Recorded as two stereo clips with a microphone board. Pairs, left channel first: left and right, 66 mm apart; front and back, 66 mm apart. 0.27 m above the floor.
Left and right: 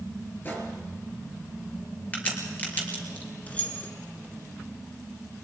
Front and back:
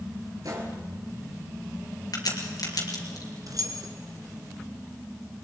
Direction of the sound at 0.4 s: 150° left.